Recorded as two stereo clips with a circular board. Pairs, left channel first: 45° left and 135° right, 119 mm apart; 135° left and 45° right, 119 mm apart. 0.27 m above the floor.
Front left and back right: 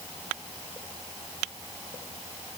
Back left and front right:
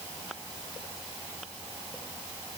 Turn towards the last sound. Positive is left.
No sound to turn to.